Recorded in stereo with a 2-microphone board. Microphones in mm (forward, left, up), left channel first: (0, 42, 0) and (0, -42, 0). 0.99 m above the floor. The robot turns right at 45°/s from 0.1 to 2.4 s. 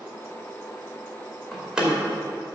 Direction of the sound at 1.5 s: 5° left (ahead or behind).